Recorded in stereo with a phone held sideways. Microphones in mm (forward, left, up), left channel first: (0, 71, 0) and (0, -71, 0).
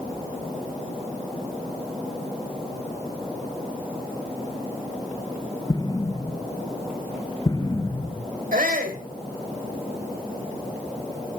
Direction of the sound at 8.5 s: 90° right.